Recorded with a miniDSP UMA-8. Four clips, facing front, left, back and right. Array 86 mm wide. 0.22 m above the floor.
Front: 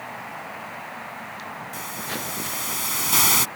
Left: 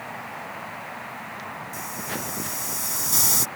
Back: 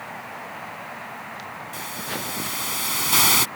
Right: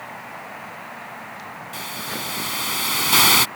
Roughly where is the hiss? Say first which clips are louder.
Right 3 dB, back 1 dB; right.